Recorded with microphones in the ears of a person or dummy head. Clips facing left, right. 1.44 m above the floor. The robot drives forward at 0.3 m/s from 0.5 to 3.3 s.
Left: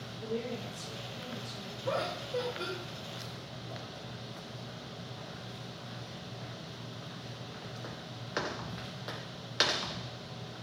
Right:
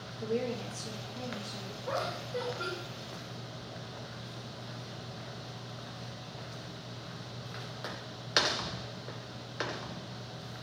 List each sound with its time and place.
0.2 s a woman speaking: 85° right, 0.5 m; by 1.7 s 55° right (ahead or behind), 0.6 m
1.8 s laughter: 65° left (ahead or behind), 0.8 m; by 2.7 s 55° left (ahead or behind), 0.9 m